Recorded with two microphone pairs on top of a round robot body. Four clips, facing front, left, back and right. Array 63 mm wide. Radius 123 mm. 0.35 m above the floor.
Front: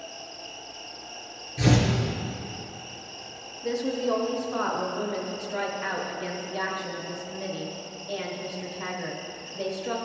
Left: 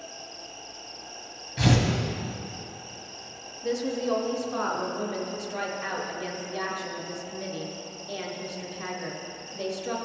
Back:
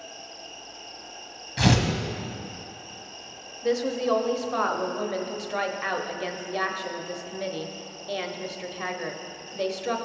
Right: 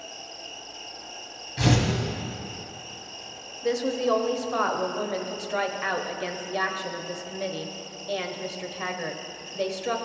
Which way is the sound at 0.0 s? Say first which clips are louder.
Right 1 dB, front 2 dB; 70° right.